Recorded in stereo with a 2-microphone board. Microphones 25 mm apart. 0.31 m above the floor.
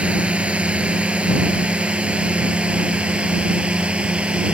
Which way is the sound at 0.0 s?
55° right (ahead or behind).